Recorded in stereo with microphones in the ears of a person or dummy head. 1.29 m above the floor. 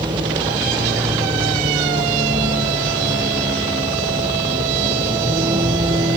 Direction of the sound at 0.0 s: 20° right (ahead or behind).